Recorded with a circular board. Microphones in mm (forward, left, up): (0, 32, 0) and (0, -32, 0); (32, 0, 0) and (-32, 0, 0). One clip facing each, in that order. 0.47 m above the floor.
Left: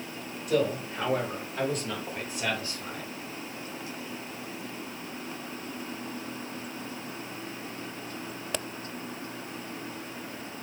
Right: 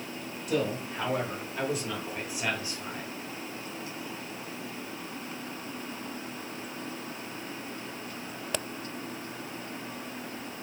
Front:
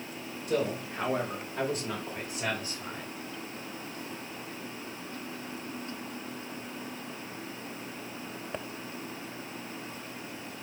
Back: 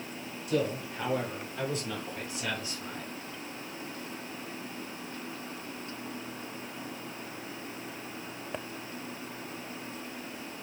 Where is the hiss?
I don't hear a hiss.